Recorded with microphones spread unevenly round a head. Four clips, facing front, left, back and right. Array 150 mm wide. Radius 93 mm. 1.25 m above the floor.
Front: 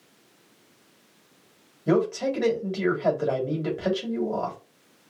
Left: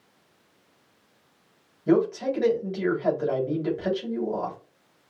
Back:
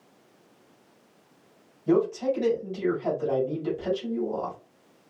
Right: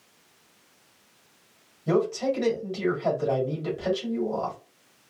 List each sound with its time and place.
1.9 s a man speaking: 5° left, 3.5 m